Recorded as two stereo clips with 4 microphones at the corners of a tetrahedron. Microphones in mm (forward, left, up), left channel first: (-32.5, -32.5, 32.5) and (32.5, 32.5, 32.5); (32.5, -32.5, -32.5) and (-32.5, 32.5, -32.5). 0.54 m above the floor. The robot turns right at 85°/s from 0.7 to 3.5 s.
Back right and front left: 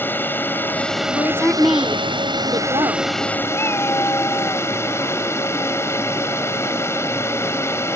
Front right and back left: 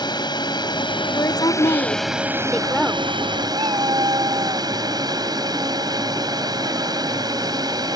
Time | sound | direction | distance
0.0 | a drone | 70° right | ?
1.1 | a woman speaking | 90° right | ?
3.5 | a cat meowing | 165° left | ?